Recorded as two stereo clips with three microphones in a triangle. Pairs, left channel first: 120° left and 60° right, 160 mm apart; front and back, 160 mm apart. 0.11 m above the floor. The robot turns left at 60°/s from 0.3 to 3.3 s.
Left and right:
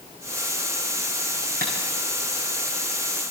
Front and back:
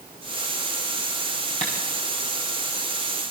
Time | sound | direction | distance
1.6 | tapping | 45° right | 6.5 m